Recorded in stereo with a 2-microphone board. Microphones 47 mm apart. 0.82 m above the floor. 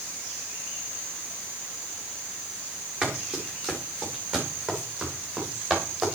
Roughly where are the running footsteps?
Right.